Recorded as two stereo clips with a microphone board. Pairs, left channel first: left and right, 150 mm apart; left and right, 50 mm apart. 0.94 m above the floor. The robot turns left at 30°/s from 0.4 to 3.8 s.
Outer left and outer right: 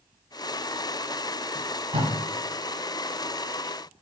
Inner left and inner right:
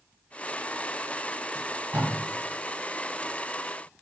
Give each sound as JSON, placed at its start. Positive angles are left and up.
{"t": 1.6, "sound": "tape being pulled", "side_deg": -50, "distance_m": 1.5}